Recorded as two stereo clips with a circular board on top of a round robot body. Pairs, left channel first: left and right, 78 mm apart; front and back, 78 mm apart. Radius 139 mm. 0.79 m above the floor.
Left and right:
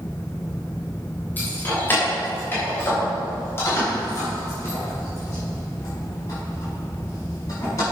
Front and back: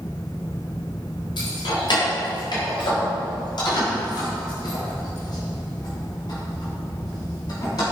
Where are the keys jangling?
20° left, 3 m; by 7.8 s 40° left, 6.5 m.